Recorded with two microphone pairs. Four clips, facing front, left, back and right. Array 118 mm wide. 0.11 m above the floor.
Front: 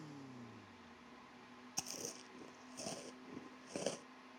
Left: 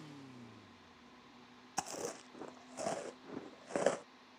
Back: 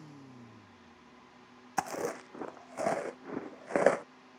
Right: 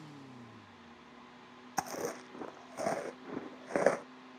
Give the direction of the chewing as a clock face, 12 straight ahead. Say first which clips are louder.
Right 5 dB, back 18 dB; 6 o'clock.